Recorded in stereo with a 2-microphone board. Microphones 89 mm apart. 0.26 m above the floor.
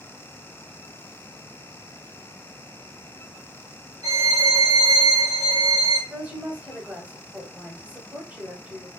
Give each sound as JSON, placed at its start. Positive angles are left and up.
{"t": 4.0, "sound": "a violin", "side_deg": -45, "distance_m": 1.4}
{"t": 6.1, "sound": "a woman speaking", "side_deg": -20, "distance_m": 0.9}